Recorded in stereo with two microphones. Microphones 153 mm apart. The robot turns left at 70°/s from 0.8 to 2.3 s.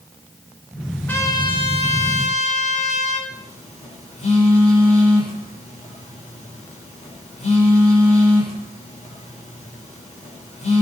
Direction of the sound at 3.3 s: 50° left (ahead or behind).